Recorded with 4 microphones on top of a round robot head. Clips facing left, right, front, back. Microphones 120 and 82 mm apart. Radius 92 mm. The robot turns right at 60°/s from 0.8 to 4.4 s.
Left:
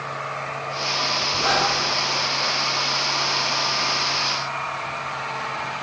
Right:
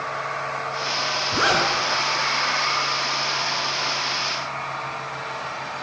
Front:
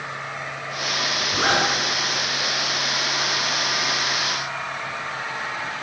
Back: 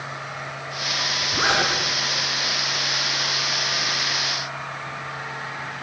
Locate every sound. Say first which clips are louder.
1.3 s a zipper: right 1 dB, front 1 dB; 100° right, 5.5 m; by 1.7 s 80° right, 5.5 m